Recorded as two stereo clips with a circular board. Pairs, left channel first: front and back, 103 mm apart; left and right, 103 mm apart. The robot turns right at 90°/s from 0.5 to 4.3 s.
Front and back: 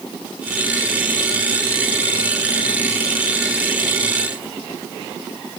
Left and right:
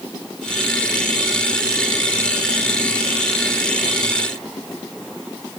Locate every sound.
Only background noise.